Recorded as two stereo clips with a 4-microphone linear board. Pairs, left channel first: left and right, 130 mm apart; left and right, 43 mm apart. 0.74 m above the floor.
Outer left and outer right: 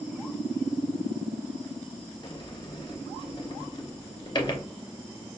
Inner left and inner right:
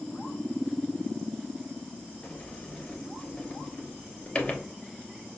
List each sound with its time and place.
2.2 s a sliding door: 35° left (ahead or behind), 0.7 m